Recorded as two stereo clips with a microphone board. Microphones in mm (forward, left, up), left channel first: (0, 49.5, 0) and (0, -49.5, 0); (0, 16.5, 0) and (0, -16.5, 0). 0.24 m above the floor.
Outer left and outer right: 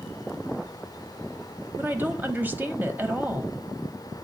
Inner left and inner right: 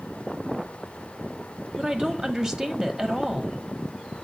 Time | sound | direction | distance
1.8 | a woman speaking | 20° right (ahead or behind) | 0.9 m